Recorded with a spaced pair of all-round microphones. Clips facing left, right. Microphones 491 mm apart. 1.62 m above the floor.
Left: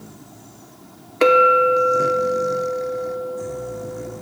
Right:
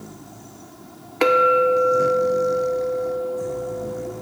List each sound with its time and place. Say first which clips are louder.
1.2 s a clink: left 2 dB; 10° right (ahead or behind), 0.5 m